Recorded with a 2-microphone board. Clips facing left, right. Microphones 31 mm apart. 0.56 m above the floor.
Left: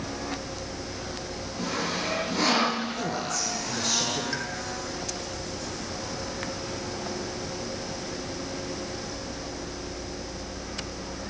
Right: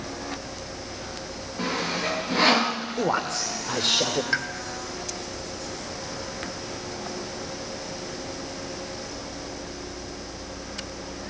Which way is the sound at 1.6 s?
40° right (ahead or behind).